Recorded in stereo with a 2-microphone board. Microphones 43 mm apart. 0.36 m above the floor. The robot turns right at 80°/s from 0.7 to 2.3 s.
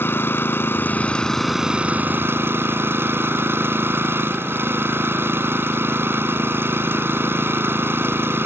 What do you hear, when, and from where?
0.0 s an engine running: 120° left; by 8.5 s 110° right